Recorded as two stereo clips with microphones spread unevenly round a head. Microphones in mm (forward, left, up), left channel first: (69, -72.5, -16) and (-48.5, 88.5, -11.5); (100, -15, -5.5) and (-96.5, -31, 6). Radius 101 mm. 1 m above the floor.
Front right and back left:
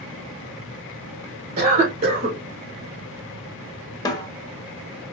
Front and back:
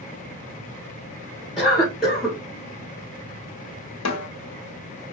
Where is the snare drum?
20° left, 0.9 m.